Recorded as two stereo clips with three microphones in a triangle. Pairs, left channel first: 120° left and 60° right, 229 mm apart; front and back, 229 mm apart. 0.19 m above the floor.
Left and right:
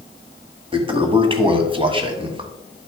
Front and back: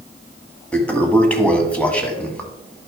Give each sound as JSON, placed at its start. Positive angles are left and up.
{"t": 0.7, "sound": "a toilet flushing", "azimuth_deg": -75, "distance_m": 1.5}